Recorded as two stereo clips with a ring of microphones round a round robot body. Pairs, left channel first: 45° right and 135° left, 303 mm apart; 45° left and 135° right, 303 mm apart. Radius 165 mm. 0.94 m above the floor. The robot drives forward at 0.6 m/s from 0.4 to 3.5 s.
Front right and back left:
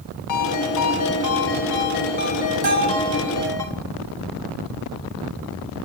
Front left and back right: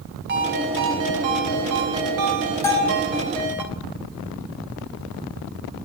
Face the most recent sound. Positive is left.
turn(degrees=135)